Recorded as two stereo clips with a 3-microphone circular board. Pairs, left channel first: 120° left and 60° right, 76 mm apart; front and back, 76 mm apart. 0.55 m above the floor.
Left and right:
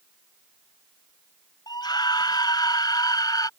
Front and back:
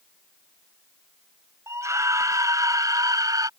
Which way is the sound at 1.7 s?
135° left.